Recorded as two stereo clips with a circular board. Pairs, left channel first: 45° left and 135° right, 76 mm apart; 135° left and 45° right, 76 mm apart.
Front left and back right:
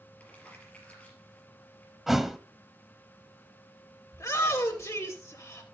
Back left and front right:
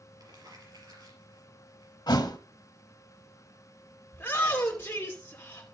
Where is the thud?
140° left, 0.8 m.